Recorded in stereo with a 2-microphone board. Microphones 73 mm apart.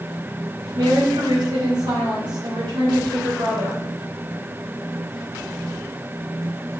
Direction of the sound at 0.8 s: 75° right (ahead or behind).